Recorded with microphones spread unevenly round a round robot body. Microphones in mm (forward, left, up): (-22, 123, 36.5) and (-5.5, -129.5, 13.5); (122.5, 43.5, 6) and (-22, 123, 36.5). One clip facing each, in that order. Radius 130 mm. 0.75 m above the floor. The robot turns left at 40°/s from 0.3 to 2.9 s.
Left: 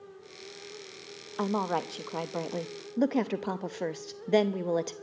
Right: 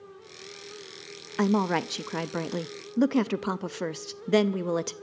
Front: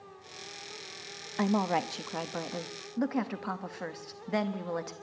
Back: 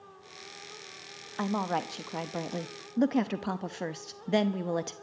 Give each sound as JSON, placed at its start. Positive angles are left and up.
{"t": 1.4, "sound": "a woman speaking", "azimuth_deg": -80, "distance_m": 0.6}